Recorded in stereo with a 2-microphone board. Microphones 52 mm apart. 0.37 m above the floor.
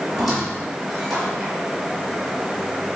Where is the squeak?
10° right (ahead or behind), 4.5 m.